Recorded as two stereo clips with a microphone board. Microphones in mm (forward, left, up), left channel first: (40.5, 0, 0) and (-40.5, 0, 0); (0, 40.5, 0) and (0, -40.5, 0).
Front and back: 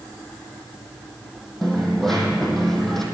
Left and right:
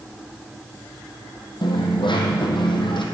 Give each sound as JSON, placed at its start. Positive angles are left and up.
{"t": 1.6, "sound": "a dropped coin", "azimuth_deg": 85, "distance_m": 1.9}